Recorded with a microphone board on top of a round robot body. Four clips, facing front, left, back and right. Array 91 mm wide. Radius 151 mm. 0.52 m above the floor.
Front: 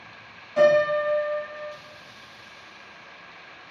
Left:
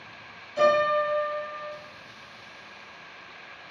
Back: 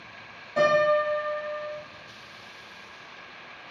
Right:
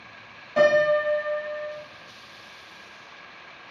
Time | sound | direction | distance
0.6 | a piano | 105° right | 5.5 m